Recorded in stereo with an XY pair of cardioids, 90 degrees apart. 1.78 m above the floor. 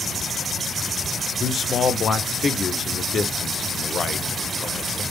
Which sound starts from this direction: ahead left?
A man speaking, at 1.4 s.